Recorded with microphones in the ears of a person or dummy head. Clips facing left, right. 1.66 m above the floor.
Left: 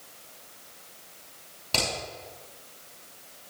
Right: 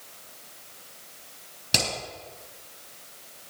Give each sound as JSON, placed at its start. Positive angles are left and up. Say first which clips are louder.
{"t": 1.7, "sound": "hammering", "louder": "right 1 dB", "side_deg": -30, "distance_m": 6.0}